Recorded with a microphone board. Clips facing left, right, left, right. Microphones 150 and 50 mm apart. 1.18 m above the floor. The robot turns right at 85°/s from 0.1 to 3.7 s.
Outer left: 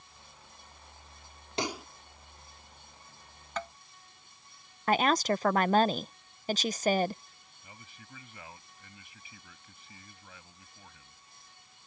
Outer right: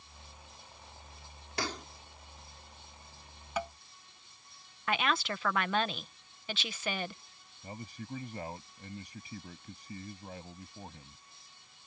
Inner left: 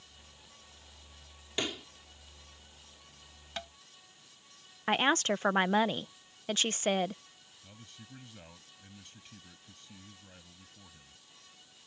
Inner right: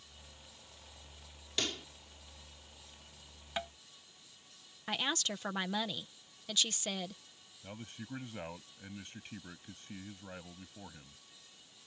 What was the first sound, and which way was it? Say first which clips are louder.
A pop: outer left 3 dB, inner left 3 dB; 25° left (ahead or behind).